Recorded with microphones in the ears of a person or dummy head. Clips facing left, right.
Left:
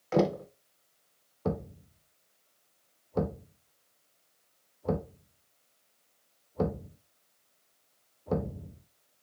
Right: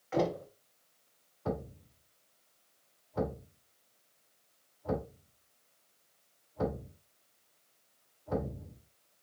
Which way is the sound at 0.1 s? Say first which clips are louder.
Left 5 dB; 65° left (ahead or behind).